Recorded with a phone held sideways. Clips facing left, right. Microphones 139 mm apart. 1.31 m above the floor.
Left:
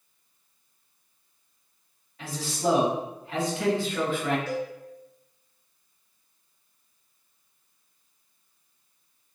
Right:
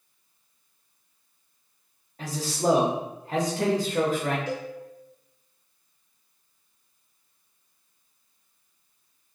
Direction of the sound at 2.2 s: 40° right (ahead or behind).